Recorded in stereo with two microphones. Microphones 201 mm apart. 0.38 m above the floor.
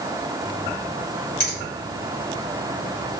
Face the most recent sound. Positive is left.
turn(degrees=50)  # may be behind; listen again after turning